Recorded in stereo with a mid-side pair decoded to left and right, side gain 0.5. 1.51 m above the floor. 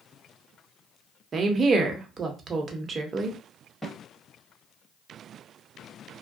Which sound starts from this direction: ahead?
A snare drum, at 3.8 s.